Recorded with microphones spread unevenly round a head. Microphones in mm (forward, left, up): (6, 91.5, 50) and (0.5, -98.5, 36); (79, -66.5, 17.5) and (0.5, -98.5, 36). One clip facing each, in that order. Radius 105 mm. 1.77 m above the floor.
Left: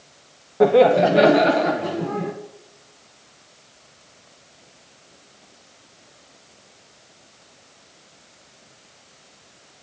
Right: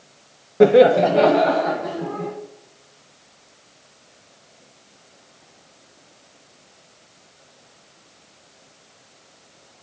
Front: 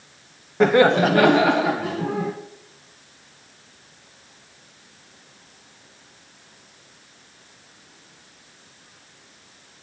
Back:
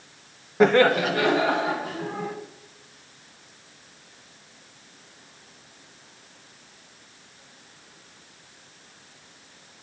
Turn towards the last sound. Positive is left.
turn(degrees=40)